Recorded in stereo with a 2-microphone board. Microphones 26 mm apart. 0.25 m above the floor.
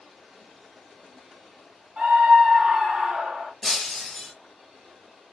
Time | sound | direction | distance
2.0 | a scream | 45° right (ahead or behind) | 2.5 m
3.6 | breaking glass | 15° left (ahead or behind) | 0.8 m